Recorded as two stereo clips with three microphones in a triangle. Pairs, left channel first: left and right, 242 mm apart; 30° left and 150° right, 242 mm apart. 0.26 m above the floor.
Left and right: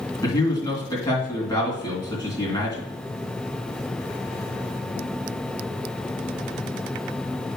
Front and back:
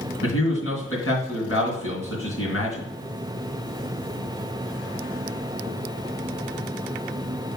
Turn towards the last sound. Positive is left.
turn(degrees=20)